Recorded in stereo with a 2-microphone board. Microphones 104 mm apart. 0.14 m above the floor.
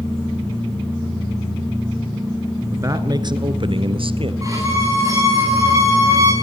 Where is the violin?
35° right (ahead or behind), 9.5 m.